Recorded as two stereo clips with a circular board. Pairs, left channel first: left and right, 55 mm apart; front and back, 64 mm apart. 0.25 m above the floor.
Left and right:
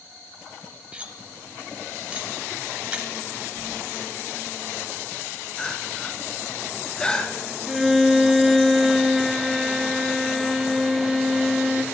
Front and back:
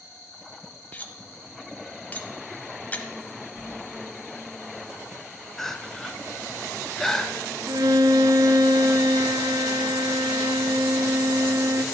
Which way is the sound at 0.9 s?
40° right.